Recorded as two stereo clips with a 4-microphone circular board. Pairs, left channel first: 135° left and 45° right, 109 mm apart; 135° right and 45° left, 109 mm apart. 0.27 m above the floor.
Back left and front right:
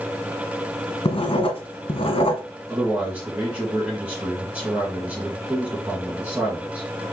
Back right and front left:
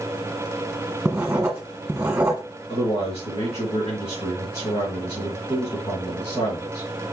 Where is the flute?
No flute in this recording.